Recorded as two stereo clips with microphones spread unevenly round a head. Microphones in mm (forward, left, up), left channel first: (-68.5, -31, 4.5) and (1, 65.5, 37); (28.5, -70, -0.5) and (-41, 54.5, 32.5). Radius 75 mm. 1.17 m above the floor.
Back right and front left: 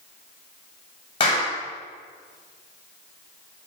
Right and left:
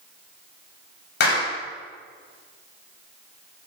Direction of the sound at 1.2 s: 70° right.